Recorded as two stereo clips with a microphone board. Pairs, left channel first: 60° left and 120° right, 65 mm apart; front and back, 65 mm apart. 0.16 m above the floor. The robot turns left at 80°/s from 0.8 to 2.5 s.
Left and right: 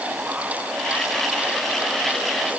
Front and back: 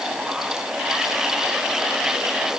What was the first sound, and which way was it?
Only background noise.